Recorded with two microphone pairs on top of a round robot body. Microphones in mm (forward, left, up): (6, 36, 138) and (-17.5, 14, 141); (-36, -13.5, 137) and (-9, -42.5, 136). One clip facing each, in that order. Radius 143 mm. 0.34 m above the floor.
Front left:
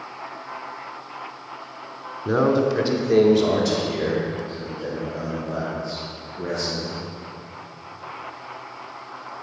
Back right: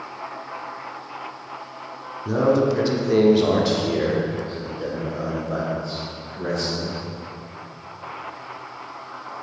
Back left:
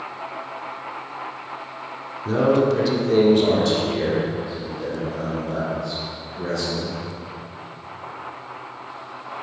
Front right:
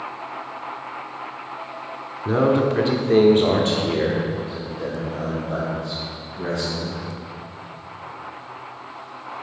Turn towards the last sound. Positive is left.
turn(degrees=-110)